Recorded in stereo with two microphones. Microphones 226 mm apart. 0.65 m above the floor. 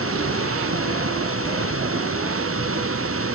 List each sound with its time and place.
0.0 s running water: 75° right (ahead or behind)